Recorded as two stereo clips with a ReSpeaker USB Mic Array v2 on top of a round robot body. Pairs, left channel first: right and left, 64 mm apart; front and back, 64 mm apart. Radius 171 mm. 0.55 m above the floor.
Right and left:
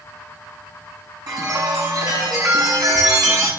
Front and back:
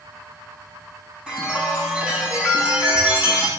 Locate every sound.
1.3 s a chime: 105° left, 6 m